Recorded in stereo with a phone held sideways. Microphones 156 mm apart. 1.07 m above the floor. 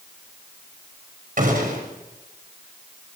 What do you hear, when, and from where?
1.4 s a gunshot: 60° right (ahead or behind), 6 m